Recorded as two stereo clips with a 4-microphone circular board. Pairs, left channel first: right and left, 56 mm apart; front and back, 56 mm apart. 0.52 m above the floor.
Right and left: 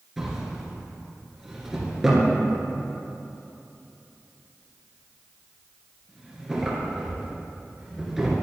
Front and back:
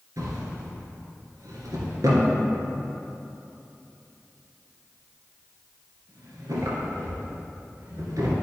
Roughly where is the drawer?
Behind.